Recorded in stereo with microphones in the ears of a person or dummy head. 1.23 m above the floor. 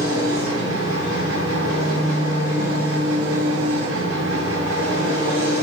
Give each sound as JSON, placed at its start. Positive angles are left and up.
{"t": 0.0, "sound": "an engine running", "side_deg": -90, "distance_m": 7.0}